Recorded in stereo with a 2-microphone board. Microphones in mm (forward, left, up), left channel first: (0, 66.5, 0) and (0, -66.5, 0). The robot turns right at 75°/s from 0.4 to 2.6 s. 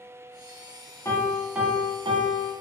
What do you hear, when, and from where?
1.1 s a piano: 150° left, 0.6 m; by 2.5 s 100° right, 0.6 m